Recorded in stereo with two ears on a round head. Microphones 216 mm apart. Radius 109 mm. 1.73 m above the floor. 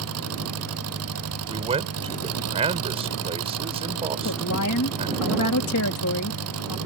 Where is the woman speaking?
60° left (ahead or behind).